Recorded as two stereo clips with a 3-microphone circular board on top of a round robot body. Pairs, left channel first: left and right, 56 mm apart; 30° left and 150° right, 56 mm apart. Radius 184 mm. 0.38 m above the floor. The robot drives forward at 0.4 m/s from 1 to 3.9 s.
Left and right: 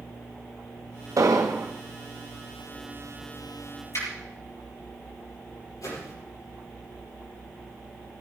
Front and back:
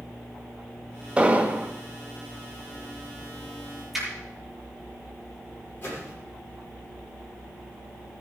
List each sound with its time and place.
1.2 s an explosion: 80° right, 2.0 m; by 1.7 s 90° right, 2.0 m
3.9 s a finger snap: 120° left, 9 m
5.8 s a whoosh: 80° left, 8.5 m